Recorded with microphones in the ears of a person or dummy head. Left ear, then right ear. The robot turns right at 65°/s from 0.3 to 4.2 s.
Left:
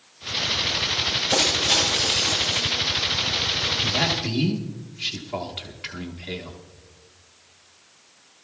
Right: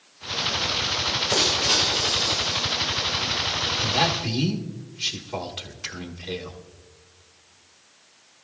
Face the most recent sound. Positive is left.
turn(degrees=0)  # may be behind; listen again after turning